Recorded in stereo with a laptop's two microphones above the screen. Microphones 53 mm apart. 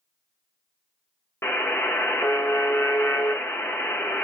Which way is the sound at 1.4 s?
50° left (ahead or behind).